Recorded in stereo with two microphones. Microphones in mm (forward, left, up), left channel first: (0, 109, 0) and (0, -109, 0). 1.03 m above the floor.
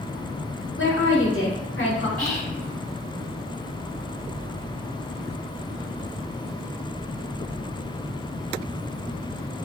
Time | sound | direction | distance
0.8 | a woman speaking | 65° left (ahead or behind) | 0.8 m
2.2 | whispering | 5° left (ahead or behind) | 0.6 m